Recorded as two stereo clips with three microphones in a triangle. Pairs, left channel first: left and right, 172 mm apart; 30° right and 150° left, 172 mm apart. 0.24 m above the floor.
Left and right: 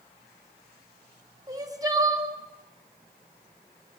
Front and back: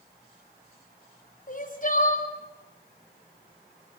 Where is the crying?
30° right, 2.5 m.